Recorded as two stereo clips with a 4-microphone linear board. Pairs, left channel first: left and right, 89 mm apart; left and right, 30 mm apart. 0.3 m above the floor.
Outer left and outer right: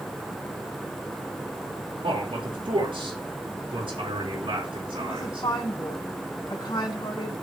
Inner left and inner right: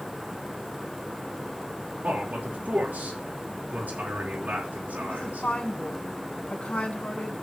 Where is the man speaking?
70° right (ahead or behind), 4.5 m.